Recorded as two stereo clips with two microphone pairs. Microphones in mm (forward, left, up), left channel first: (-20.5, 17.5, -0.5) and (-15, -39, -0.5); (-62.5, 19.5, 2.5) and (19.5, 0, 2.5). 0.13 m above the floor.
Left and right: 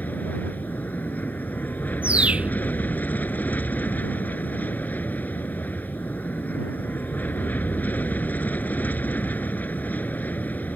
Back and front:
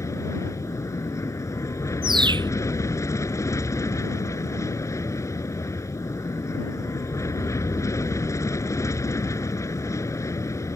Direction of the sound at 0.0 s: 135° left.